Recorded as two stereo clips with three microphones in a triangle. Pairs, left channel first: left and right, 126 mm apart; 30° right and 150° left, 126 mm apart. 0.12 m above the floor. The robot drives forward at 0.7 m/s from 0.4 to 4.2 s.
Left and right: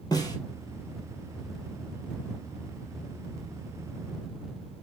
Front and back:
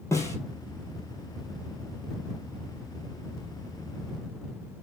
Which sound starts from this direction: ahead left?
A snare drum, at 0.1 s.